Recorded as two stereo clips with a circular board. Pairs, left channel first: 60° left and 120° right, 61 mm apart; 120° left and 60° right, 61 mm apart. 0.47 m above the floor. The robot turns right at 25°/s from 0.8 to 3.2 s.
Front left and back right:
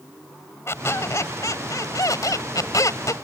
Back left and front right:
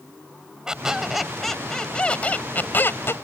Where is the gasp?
I don't hear a gasp.